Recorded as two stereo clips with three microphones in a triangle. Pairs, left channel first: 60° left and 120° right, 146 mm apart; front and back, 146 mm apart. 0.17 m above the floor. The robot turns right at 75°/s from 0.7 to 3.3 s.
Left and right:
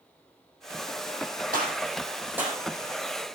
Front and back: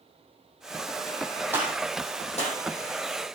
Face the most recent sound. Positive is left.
turn(degrees=25)